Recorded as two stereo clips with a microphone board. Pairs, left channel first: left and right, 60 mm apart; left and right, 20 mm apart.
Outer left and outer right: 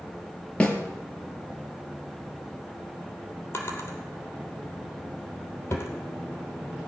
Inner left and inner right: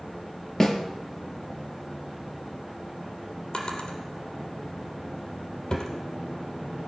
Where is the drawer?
40° left (ahead or behind), 3 m.